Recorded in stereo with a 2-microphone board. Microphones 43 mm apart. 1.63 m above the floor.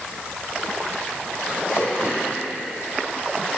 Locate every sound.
1.7 s throat clearing: 85° left, 6.5 m